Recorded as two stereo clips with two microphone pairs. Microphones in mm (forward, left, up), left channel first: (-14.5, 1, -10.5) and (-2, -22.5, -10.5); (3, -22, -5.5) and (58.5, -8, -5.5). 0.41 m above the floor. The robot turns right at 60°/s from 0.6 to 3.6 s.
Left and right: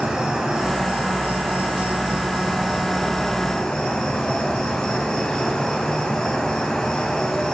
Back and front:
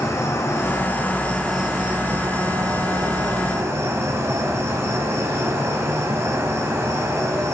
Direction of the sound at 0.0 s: 130° right.